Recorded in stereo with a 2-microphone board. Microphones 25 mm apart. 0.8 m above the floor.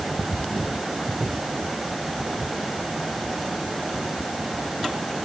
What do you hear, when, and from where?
Only background noise.